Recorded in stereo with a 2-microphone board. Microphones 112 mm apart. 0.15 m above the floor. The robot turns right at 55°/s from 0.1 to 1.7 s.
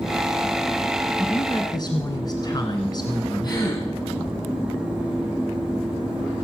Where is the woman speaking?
30° left (ahead or behind), 2 m; by 3.6 s 40° left (ahead or behind), 2 m.